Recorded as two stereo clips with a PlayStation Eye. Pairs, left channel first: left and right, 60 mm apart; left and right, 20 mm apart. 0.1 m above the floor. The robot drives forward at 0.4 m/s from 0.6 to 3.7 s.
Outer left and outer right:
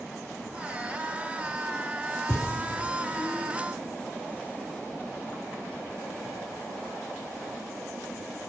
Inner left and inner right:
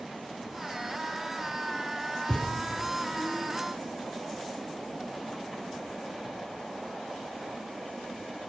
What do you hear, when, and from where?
2.3 s a thud: 35° left (ahead or behind), 1.5 m